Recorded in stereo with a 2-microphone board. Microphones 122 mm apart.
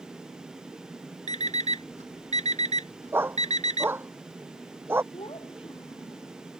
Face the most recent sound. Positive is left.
turn(degrees=50)  # may be behind; listen again after turning